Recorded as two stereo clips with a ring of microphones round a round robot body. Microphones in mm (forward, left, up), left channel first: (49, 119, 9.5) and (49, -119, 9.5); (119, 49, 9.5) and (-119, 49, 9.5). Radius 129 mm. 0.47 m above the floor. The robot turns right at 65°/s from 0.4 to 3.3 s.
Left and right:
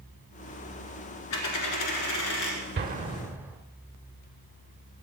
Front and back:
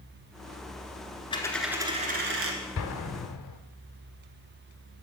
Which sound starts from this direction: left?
A dropped coin, at 1.3 s.